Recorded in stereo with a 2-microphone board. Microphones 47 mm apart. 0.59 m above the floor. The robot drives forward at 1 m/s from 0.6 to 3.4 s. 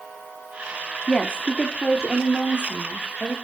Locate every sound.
1.1 s a woman speaking: 25° left (ahead or behind), 1.3 m; by 3.3 s 10° left (ahead or behind), 3 m